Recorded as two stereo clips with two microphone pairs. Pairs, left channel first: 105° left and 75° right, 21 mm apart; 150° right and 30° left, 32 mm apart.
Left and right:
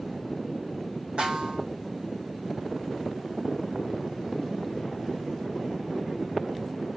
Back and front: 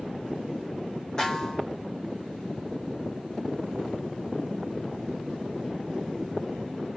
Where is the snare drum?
90° right, 3.5 m.